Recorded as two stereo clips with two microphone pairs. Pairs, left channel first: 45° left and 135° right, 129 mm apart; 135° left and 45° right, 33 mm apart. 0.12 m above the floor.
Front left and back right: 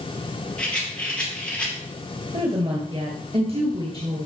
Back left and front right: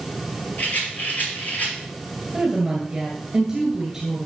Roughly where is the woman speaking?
Behind right.